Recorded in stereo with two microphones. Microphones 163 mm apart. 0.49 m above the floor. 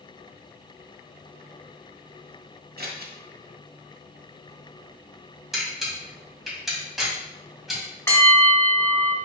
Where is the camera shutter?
Centre (ahead or behind), 2.5 m.